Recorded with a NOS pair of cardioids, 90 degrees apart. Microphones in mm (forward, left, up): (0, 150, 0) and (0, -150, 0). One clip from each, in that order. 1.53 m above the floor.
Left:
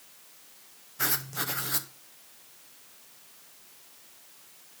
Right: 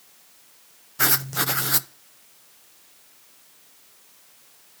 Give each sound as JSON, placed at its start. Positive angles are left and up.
{"t": 1.0, "sound": "writing", "azimuth_deg": -35, "distance_m": 0.5}